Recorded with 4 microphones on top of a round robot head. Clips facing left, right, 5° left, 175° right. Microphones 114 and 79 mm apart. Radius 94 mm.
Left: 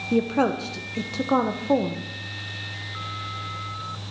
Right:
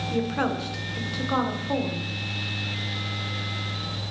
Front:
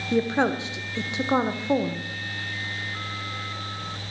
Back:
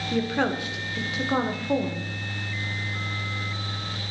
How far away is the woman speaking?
About 0.9 m.